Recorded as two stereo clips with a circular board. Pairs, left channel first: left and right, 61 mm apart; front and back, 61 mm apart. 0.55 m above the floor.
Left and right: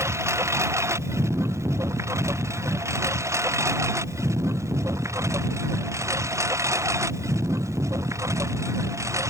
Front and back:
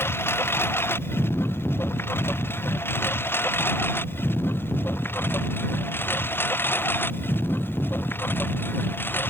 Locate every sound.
0.0 s a lawn mower: 50° right; by 9.3 s 55° right